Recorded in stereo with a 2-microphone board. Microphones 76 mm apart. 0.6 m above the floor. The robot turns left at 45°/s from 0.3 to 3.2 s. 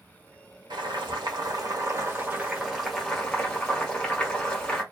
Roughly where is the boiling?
Right.